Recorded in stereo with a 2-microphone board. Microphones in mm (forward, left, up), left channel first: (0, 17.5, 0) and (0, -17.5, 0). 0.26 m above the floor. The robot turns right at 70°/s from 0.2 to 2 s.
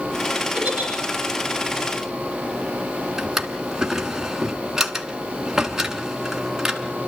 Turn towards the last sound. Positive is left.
turn(degrees=-10)  # may be behind; listen again after turning